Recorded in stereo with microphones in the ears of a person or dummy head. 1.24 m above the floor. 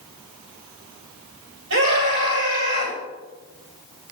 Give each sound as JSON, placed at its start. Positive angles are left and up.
{"t": 1.7, "sound": "a scream", "side_deg": -65, "distance_m": 9.0}